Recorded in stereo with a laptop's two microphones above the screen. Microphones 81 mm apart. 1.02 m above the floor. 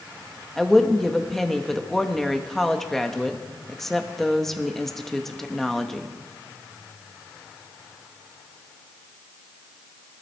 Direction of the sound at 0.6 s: 5° left (ahead or behind).